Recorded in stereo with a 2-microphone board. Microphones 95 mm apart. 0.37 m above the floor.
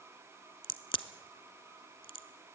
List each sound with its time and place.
0.6 s a crack: 65° left (ahead or behind), 0.8 m